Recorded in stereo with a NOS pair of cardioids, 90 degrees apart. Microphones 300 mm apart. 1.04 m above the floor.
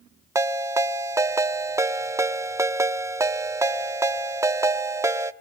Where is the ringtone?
10° right, 1.0 m.